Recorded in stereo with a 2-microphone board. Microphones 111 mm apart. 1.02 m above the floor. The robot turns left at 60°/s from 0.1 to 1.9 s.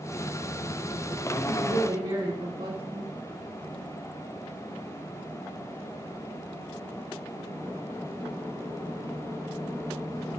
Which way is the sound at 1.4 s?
80° right.